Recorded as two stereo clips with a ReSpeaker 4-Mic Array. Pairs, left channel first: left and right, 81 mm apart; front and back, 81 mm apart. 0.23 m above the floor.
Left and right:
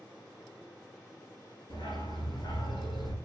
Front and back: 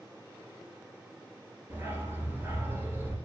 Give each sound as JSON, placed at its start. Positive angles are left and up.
{"t": 1.7, "sound": "a dog barking", "azimuth_deg": 115, "distance_m": 2.0}